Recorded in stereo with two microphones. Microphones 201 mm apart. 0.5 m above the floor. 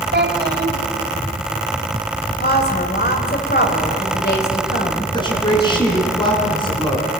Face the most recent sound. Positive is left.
turn(degrees=20)  # may be behind; listen again after turning